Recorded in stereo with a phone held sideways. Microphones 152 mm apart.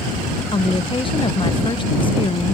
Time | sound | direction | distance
0.5 | a woman speaking | 35° left (ahead or behind) | ?